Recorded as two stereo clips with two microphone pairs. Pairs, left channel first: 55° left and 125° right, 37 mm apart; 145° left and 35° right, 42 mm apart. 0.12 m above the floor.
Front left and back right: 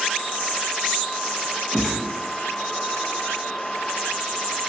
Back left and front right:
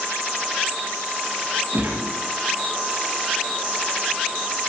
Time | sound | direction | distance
1.7 | a gunshot | 20° right | 2.5 m